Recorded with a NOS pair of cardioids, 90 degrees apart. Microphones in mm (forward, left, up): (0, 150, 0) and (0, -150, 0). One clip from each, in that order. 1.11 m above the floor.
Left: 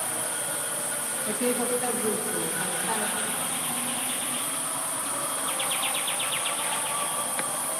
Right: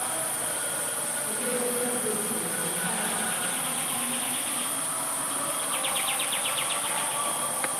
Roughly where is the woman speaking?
Ahead left.